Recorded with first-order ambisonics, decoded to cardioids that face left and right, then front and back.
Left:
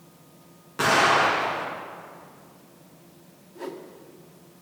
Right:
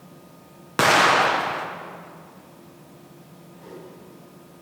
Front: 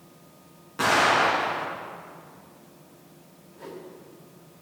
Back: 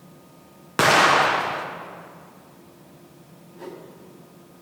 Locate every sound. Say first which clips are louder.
0.8 s an explosion: right 3 dB, back 4 dB; 140° right, 1.5 m
3.5 s a whoosh: left 6 dB, back 2 dB; 105° left, 1.7 m